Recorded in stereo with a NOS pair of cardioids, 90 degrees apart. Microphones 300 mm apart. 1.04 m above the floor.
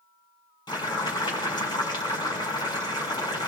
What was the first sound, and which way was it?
Boiling, 15° left.